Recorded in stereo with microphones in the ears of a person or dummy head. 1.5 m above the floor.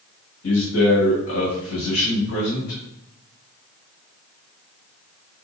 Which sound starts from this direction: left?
A man speaking, at 0.4 s.